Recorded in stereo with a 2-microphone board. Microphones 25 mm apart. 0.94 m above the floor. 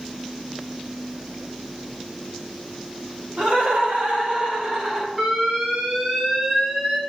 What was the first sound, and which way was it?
Laughter, 70° right (ahead or behind).